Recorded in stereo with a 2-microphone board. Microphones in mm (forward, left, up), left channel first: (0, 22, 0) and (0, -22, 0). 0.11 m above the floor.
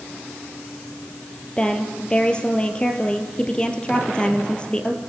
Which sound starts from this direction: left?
A woman speaking, at 1.6 s.